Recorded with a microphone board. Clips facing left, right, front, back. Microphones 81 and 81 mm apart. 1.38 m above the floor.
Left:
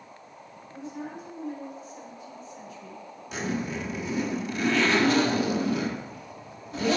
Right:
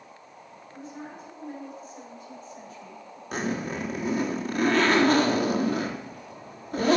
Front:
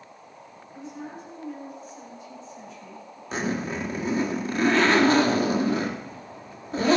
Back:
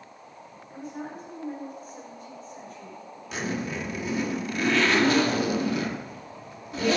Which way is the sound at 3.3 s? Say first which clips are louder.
Right 1 dB, front 3 dB; 50° right.